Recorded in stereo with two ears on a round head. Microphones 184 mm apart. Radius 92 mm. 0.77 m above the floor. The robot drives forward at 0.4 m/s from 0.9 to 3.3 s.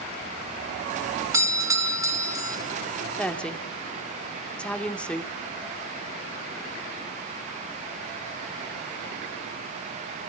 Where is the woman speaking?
5° left (ahead or behind), 1.8 m.